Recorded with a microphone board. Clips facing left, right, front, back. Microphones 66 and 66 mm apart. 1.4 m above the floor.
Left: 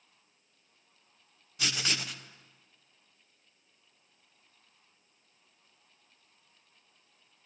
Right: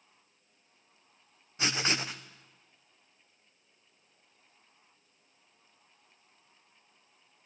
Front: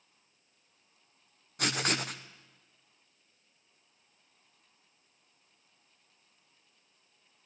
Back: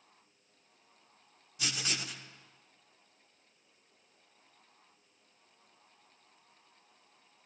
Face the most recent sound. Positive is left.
turn(degrees=-30)